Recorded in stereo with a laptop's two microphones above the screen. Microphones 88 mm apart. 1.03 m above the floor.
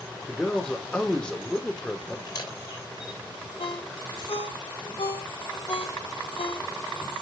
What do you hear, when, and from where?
0.3 s a man speaking: 10° left (ahead or behind), 3.5 m
2.3 s a camera shutter: 50° left (ahead or behind), 3 m
3.6 s a ringtone: 85° left, 2 m